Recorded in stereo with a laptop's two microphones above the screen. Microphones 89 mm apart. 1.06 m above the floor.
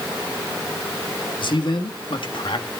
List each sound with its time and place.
1.4 s a man speaking: 65° left (ahead or behind), 1.8 m